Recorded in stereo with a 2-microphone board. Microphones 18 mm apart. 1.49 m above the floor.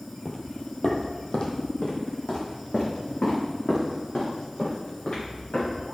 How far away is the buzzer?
No buzzer in this recording.